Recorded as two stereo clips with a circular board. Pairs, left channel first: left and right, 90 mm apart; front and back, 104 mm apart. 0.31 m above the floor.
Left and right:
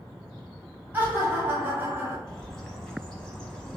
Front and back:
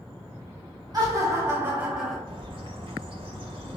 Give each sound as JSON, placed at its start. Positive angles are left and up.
{"t": 0.9, "sound": "laughter", "azimuth_deg": -150, "distance_m": 1.3}
{"t": 2.3, "sound": "a bird", "azimuth_deg": 170, "distance_m": 1.0}